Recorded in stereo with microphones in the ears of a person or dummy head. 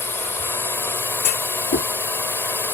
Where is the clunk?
45° left (ahead or behind).